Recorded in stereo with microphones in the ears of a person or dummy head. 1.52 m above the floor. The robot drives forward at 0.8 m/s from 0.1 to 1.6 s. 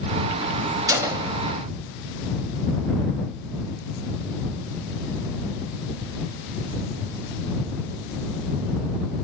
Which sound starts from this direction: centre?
A gunshot, at 0.9 s.